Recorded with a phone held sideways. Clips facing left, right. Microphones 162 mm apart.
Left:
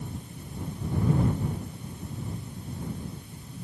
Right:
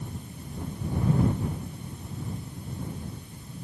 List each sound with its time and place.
Only background noise.